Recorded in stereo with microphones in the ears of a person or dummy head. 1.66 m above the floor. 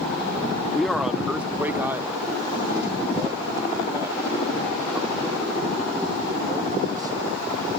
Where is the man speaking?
Centre (ahead or behind); by 7.4 s 25° right (ahead or behind).